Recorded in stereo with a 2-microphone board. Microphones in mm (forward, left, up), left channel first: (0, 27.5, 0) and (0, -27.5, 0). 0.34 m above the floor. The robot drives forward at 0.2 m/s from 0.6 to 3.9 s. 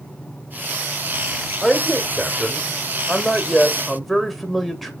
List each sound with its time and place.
1.6 s a man speaking: 5° right (ahead or behind), 1.2 m